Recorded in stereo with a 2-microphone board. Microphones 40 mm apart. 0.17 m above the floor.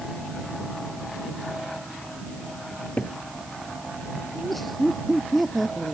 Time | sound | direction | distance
2.7 | a cupboard door | 35° left (ahead or behind) | ?
4.3 | laughter | centre (ahead or behind) | ?